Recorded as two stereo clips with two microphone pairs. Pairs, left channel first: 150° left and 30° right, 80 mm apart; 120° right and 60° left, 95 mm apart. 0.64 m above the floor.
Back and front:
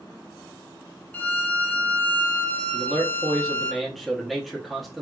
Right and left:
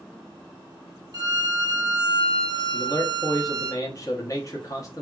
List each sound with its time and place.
1.1 s a violin: 85° left, 0.5 m
2.7 s a man speaking: 115° right, 0.9 m